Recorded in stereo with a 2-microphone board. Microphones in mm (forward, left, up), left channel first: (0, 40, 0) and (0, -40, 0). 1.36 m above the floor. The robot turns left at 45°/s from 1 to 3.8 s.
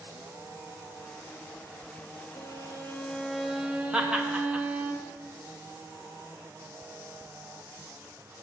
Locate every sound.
2.4 s a violin: 45° left, 0.7 m; by 4.9 s 20° right, 0.7 m
3.9 s laughter: 15° right (ahead or behind), 0.9 m